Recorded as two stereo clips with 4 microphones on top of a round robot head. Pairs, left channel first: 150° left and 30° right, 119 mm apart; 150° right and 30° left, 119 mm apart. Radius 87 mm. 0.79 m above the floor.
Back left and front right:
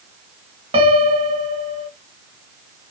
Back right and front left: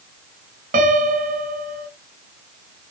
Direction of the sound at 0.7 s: 10° left.